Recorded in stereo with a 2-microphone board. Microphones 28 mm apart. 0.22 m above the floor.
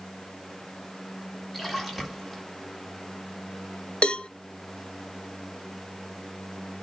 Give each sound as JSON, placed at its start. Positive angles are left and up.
{"t": 1.5, "sound": "a splash", "side_deg": 5, "distance_m": 1.8}
{"t": 4.0, "sound": "a cowbell", "side_deg": 50, "distance_m": 0.6}